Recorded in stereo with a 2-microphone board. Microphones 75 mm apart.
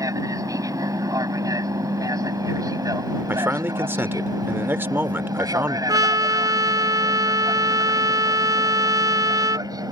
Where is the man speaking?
30° right (ahead or behind).